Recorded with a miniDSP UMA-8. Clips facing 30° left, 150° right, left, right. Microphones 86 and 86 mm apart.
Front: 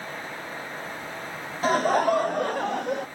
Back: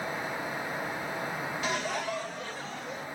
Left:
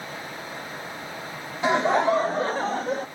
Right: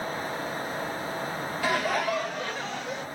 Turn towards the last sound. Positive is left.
turn(degrees=45)